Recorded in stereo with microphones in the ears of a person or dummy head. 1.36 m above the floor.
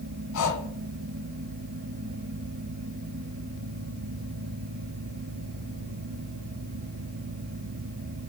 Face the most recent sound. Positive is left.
turn(degrees=75)  # may be behind; listen again after turning